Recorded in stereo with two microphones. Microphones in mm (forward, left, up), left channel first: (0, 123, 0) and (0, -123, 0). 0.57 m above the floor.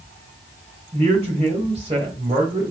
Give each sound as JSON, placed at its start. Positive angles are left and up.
{"t": 0.9, "sound": "a man speaking", "side_deg": -25, "distance_m": 3.0}